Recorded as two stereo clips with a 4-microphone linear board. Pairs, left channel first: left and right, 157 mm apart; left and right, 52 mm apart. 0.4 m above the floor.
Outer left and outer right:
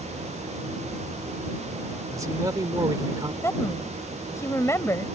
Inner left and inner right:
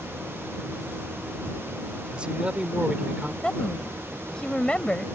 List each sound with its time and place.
2.1 s a man speaking: 20° right (ahead or behind); by 3.3 s 25° right (ahead or behind)
3.4 s a woman speaking: 20° left (ahead or behind)